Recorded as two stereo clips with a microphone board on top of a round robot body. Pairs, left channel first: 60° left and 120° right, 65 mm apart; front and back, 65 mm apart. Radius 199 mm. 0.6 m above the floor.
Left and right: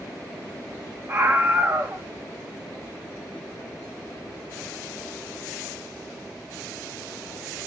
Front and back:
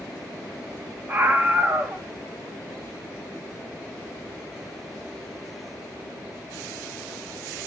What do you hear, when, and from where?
1.1 s a scream: 140° right, 1.3 m